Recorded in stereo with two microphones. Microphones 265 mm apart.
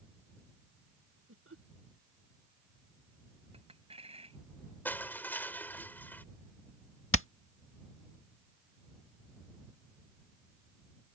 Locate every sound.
1.3 s laughter: 55° right (ahead or behind)
3.5 s a clink: 20° right (ahead or behind)
4.8 s crushing: 5° left (ahead or behind)
7.1 s hammering: 50° left (ahead or behind)